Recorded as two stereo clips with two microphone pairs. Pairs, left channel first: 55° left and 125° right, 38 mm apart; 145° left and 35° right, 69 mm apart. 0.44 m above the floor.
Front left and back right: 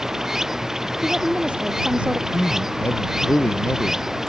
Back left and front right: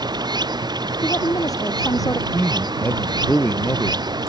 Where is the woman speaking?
175° left.